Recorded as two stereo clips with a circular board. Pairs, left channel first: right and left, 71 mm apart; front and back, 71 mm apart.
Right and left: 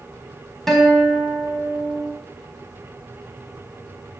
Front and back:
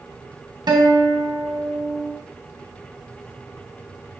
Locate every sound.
0.7 s a guitar: 175° right, 3.5 m